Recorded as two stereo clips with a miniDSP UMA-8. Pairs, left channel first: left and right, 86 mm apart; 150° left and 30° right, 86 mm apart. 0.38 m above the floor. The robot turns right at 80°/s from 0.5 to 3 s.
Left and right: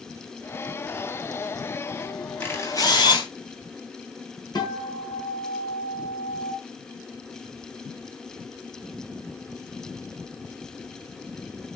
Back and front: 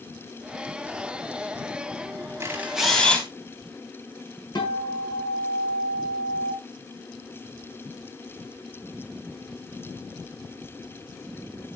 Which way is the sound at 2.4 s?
25° left.